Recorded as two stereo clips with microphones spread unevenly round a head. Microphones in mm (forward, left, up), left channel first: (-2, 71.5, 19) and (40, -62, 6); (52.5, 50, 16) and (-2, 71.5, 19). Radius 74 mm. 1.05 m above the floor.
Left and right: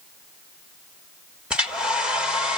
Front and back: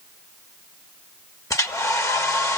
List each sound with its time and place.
1.5 s a hair dryer: 10° left, 1.6 m